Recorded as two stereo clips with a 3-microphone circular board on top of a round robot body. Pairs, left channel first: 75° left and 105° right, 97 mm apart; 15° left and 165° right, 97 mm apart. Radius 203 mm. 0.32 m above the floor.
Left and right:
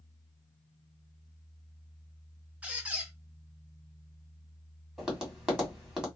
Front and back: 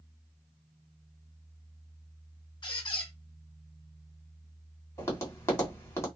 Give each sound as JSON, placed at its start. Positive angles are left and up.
{"t": 2.6, "sound": "a squeak", "azimuth_deg": -25, "distance_m": 0.5}
{"t": 5.0, "sound": "tapping", "azimuth_deg": -30, "distance_m": 1.8}